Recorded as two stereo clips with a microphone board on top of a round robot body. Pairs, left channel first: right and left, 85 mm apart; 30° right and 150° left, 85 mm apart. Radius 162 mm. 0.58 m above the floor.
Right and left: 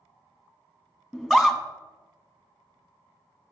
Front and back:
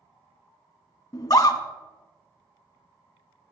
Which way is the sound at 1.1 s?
5° left.